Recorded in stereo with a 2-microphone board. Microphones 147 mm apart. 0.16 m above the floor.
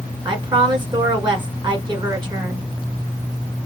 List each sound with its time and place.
0.2 s a woman speaking: 35° right (ahead or behind), 1.4 m